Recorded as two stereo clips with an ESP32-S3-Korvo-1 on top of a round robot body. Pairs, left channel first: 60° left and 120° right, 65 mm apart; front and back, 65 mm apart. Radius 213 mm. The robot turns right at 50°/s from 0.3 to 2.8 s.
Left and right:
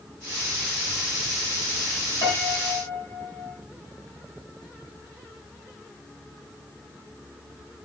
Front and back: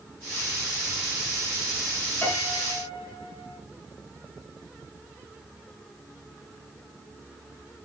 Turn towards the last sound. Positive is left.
turn(degrees=100)